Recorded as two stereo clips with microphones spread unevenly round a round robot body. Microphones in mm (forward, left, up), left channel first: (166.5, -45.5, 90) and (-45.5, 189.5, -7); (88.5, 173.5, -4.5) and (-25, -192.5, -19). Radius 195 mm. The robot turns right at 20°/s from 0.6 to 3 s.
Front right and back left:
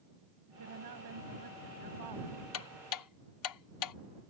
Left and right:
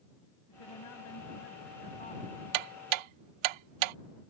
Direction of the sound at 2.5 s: 95° right.